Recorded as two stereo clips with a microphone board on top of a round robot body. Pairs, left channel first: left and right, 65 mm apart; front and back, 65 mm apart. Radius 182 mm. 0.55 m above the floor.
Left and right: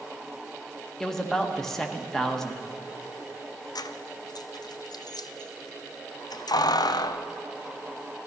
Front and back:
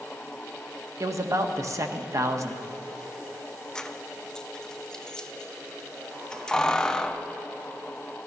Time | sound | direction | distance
1.0 | a man speaking | 170° left | 1.5 m
3.8 | keys jangling | 80° left | 0.5 m